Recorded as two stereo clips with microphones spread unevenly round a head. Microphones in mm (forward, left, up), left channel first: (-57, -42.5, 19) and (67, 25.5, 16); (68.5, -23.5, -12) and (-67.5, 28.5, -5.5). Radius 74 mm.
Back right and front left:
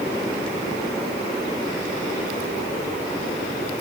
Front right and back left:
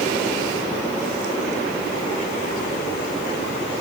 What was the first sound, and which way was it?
Only background noise.